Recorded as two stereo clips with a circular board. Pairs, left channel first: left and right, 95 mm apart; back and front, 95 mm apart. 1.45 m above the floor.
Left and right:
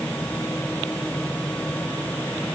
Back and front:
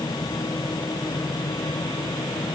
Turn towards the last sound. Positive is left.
No sound to turn to.